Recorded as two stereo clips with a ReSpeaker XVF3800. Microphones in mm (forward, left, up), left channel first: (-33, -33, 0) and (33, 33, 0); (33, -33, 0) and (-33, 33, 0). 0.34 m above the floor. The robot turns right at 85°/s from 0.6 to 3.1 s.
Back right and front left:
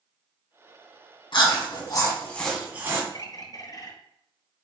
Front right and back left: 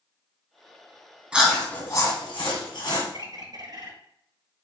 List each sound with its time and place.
1.3 s chewing: 150° right, 2 m; by 3.0 s straight ahead, 2 m
3.1 s a bird: straight behind, 1.5 m